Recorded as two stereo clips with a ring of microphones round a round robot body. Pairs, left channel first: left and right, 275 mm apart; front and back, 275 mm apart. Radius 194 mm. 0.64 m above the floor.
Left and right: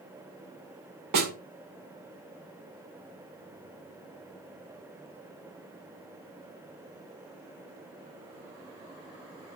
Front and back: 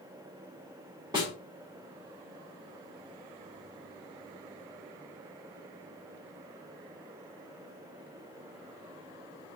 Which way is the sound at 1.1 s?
100° right.